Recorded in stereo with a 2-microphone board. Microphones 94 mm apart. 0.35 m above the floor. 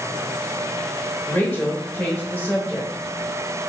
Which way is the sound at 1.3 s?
15° left (ahead or behind).